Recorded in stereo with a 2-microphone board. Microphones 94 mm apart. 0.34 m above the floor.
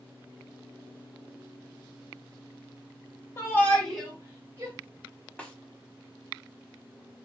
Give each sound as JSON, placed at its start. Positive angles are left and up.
{"t": 3.4, "sound": "a shout", "side_deg": 30, "distance_m": 1.2}
{"t": 5.4, "sound": "a snare drum", "side_deg": 15, "distance_m": 0.7}